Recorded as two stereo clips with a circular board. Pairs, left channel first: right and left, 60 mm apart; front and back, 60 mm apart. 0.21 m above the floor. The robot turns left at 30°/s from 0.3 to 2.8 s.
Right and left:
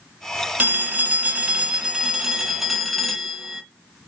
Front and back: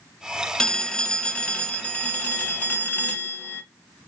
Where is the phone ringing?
65° left, 0.6 m; by 3.6 s straight ahead, 0.6 m.